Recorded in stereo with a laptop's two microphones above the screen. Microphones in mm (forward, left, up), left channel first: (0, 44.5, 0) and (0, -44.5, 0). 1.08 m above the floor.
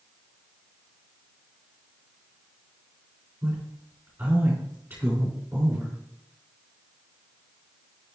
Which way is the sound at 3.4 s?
20° right (ahead or behind).